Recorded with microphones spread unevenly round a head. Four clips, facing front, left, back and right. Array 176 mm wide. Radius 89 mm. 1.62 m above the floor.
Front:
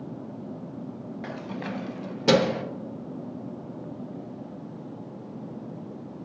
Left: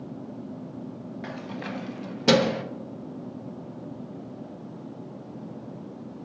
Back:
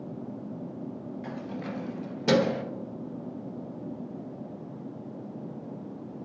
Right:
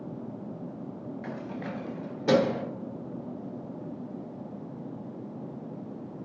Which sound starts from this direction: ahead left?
Keys jangling, at 1.2 s.